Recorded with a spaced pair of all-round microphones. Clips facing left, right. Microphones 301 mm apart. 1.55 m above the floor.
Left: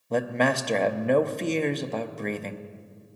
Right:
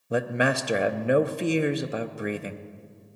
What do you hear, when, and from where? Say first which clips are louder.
0.1 s a man speaking: even; 10° right (ahead or behind), 0.6 m